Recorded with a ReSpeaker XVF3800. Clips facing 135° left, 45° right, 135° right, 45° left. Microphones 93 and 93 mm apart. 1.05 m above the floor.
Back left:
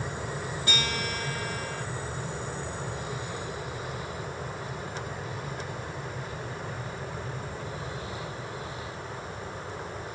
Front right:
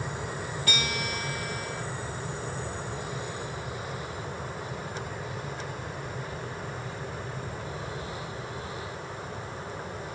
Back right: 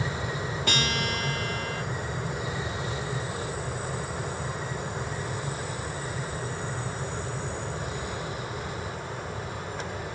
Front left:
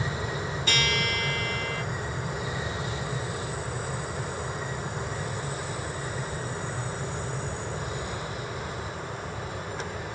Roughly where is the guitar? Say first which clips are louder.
Even, front left 1 dB; behind.